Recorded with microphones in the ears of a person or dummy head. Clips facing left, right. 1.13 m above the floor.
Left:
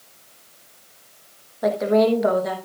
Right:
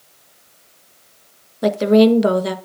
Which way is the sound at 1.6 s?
45° right (ahead or behind).